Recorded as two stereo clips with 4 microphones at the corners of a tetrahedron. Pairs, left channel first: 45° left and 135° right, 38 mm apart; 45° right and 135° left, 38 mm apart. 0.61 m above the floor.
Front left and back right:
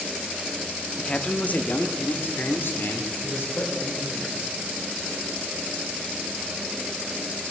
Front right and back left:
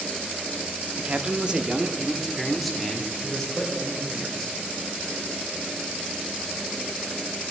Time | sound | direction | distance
1.0 | a man speaking | 100° left | 0.8 m